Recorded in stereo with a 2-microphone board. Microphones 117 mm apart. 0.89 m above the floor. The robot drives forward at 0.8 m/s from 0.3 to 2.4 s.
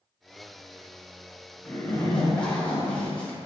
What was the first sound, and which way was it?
A zipper, 10° left (ahead or behind).